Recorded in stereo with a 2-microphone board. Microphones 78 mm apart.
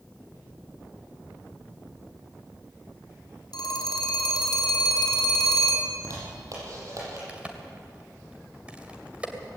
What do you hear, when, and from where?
3.5 s a phone ringing: 70° left (ahead or behind), 4 m
5.9 s a zipper: 50° right (ahead or behind), 7.5 m
7.3 s a crack: 15° right (ahead or behind), 2.5 m